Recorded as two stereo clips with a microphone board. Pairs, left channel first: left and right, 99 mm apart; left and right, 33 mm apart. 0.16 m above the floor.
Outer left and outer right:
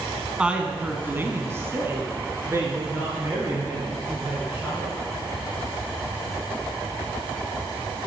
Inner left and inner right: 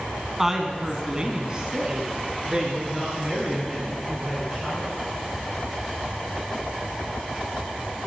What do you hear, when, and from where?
0.4 s a woman speaking: 10° right (ahead or behind), 1.3 m; by 4.9 s 25° right (ahead or behind), 4.5 m